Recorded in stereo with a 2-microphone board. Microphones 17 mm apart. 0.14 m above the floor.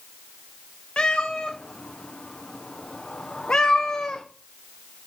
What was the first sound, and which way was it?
A cat meowing, 80° left.